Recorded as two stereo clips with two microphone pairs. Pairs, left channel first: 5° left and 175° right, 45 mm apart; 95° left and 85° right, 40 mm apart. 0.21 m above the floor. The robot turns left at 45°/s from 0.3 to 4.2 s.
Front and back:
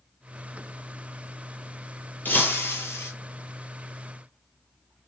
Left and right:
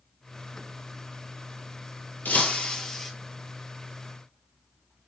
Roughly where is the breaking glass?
Ahead left.